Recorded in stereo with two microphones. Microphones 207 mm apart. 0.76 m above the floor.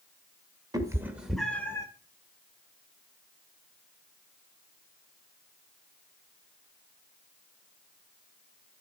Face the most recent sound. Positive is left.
turn(degrees=15)  # may be behind; listen again after turning